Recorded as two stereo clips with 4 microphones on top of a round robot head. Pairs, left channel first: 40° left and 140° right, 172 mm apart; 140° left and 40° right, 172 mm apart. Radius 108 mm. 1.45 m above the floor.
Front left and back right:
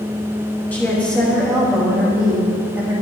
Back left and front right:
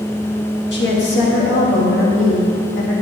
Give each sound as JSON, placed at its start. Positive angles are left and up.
{"t": 0.7, "sound": "a woman speaking", "azimuth_deg": 120, "distance_m": 3.5}